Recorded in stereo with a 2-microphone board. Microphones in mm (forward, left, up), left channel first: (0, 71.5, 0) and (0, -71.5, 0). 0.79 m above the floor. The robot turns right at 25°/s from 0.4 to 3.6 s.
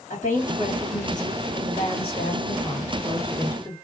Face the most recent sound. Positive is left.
turn(degrees=170)